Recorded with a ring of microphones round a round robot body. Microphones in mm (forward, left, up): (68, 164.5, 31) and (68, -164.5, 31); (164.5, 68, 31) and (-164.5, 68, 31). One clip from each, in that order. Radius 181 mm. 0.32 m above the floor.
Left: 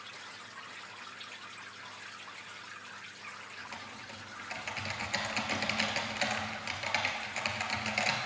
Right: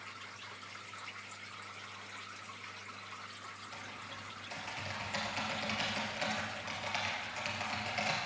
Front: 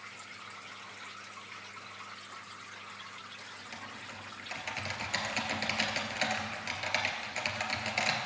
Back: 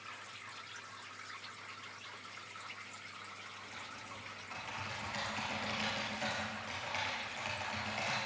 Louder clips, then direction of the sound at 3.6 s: Left 2 dB, front 3 dB; 35° left.